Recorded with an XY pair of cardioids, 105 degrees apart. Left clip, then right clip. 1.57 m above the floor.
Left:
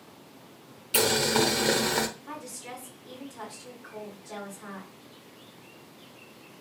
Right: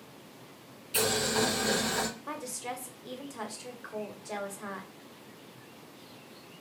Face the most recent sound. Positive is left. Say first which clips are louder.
# right 2 dB
turn(degrees=-50)